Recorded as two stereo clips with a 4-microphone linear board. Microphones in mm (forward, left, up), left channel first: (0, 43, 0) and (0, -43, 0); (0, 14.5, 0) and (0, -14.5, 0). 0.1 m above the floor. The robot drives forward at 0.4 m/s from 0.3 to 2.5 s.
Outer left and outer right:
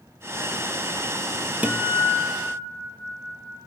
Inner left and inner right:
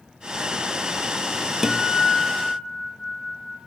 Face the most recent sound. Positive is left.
turn(degrees=-15)  # may be behind; listen again after turning